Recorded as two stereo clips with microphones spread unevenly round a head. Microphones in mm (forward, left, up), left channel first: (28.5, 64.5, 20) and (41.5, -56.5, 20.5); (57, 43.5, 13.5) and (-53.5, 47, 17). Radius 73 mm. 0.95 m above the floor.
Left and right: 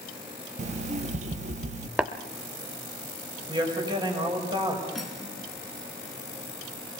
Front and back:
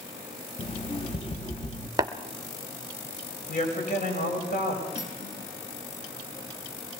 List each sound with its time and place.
0.6 s an alarm clock: 60° right, 0.7 m
2.0 s tapping: 160° right, 0.7 m
3.5 s a woman speaking: 30° right, 5.5 m
5.0 s cutlery clinking: 10° left, 6 m